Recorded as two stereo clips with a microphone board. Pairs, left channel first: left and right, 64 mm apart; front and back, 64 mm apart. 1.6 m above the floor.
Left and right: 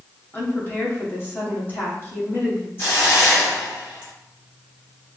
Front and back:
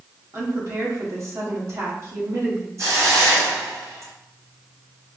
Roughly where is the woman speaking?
Behind left.